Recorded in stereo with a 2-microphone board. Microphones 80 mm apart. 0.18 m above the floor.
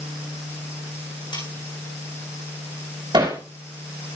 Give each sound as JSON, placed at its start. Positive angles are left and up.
{"t": 1.3, "sound": "cutlery clinking", "side_deg": 75, "distance_m": 7.5}
{"t": 3.1, "sound": "hammering", "side_deg": -65, "distance_m": 6.5}